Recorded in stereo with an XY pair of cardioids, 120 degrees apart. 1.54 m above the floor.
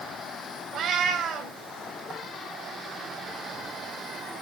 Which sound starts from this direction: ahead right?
A cat meowing, at 0.7 s.